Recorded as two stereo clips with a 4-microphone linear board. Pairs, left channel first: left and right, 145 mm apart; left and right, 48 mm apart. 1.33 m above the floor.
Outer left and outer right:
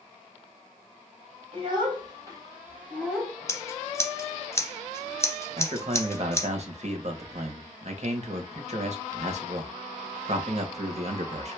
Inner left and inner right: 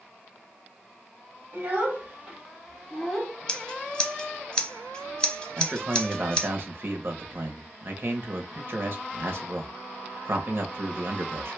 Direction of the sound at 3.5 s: 20° left (ahead or behind).